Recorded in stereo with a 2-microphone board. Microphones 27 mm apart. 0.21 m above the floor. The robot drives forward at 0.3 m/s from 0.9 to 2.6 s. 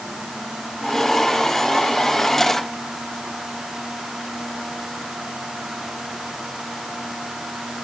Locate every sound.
Only background noise.